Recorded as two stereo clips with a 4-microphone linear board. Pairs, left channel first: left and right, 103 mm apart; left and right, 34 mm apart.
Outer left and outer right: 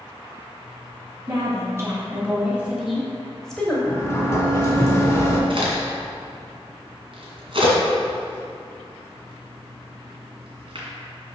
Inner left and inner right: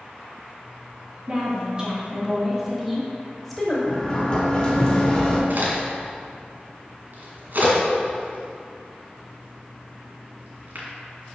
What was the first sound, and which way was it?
A woman speaking, 30° right (ahead or behind).